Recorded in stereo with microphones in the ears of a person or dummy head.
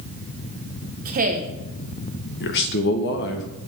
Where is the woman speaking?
40° right (ahead or behind), 1.1 m.